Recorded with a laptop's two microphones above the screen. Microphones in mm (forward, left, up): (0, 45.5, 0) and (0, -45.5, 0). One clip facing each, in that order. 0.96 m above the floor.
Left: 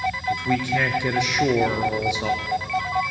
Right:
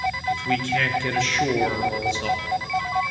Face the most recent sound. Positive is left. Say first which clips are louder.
# left 2 dB
turn(degrees=15)  # may be behind; listen again after turning